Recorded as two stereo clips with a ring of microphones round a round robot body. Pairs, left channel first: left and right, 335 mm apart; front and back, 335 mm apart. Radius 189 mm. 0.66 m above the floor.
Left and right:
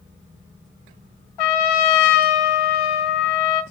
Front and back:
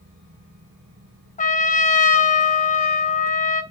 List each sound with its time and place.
1.4 s a trumpet: 70° left, 1.5 m